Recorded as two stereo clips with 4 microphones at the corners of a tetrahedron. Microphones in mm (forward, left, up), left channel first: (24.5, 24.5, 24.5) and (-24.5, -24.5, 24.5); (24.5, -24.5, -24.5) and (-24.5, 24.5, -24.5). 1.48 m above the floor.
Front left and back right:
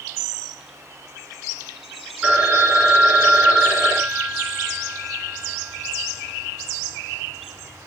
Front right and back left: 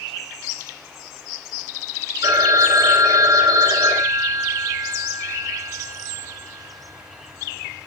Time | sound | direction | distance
2.2 | a phone ringing | 155° left | 3 m